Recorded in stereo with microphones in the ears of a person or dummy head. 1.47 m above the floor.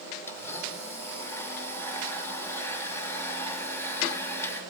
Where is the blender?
15° left (ahead or behind), 3 m.